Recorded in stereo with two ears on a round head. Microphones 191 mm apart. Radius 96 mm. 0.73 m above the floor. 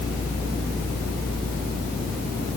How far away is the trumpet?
No trumpet in this recording.